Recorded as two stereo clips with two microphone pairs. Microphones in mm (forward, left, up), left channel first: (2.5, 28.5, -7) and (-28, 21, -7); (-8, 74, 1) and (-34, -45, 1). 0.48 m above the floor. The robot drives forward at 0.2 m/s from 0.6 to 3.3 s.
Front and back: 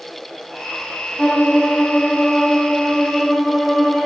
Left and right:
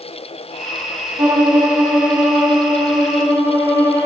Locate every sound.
1.2 s a violin: 50° right, 1.6 m; by 4.1 s 70° right, 1.4 m